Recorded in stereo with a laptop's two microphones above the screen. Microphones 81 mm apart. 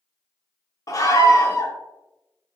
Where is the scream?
45° left (ahead or behind), 0.7 m.